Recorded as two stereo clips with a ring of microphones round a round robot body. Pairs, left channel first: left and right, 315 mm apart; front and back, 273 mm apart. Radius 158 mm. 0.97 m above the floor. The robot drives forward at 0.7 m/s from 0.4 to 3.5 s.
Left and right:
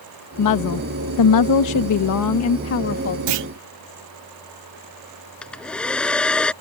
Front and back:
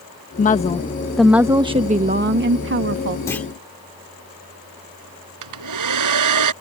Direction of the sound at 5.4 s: 175° left.